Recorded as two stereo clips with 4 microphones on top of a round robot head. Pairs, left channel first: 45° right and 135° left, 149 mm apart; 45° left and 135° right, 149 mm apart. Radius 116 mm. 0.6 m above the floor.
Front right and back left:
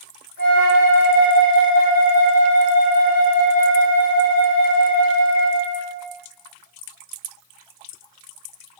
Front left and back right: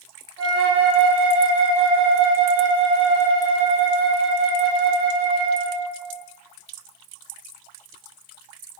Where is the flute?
30° right, 3 m.